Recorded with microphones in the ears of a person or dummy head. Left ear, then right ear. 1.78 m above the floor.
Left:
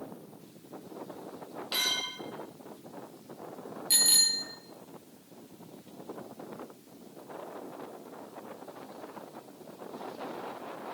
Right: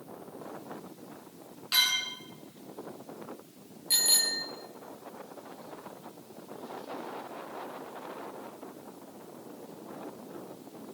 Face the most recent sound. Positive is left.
turn(degrees=5)  # may be behind; listen again after turning